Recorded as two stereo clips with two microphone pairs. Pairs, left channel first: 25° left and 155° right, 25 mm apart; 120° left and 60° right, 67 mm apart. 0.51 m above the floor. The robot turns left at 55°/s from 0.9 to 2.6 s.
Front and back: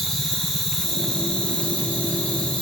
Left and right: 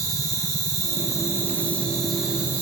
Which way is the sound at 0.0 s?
100° left.